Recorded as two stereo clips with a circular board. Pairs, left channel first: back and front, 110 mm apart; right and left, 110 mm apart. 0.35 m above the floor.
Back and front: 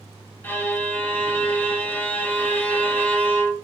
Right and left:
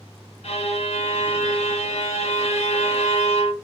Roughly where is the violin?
Right.